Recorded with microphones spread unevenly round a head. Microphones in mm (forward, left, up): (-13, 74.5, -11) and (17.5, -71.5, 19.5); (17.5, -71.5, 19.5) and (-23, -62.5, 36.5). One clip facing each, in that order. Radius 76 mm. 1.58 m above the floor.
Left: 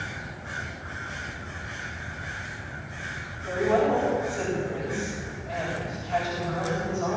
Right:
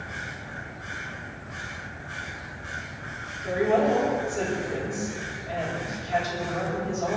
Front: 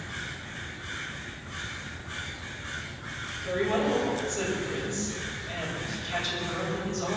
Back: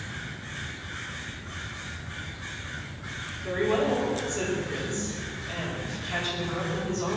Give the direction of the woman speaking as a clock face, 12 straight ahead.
5 o'clock.